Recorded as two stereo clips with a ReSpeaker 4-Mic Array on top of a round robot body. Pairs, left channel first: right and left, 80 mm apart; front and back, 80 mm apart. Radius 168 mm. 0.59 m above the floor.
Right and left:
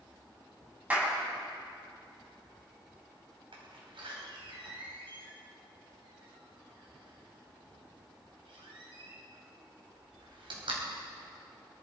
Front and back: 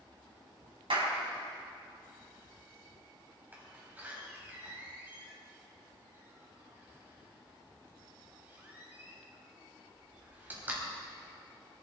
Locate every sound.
0.9 s a clap: 165° left, 4 m
3.5 s a door slam: 110° left, 3 m